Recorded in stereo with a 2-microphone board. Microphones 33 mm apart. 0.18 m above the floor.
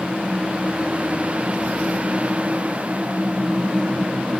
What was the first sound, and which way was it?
Only background noise.